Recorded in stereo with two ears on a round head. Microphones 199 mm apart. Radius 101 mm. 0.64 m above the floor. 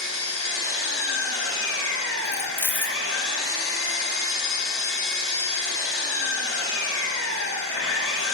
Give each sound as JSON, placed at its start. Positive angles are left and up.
{"t": 0.0, "sound": "an engine running", "side_deg": 70, "distance_m": 6.0}
{"t": 2.2, "sound": "keys jangling", "side_deg": 10, "distance_m": 0.6}